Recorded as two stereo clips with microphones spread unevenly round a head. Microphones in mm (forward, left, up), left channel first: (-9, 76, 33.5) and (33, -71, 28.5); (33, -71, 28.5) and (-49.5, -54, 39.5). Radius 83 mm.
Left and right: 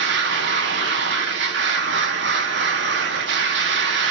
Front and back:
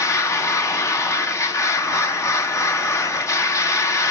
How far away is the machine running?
About 1.6 m.